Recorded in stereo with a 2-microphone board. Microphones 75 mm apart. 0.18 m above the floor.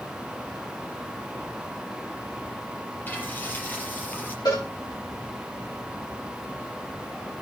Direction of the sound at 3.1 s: 25° left (ahead or behind).